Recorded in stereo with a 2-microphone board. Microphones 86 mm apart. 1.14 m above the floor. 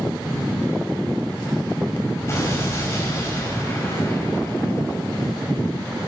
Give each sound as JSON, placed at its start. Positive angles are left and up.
{"t": 2.3, "sound": "an explosion", "side_deg": 35, "distance_m": 5.0}